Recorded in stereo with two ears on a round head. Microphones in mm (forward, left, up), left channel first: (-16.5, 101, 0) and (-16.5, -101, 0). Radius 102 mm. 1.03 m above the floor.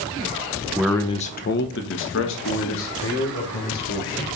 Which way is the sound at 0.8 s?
5° right (ahead or behind).